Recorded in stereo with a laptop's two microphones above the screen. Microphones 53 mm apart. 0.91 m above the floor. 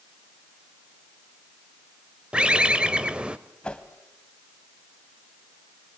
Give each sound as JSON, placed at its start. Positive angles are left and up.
{"t": 2.3, "sound": "a bird", "side_deg": -20, "distance_m": 0.9}
{"t": 3.6, "sound": "a whoosh", "side_deg": 20, "distance_m": 1.1}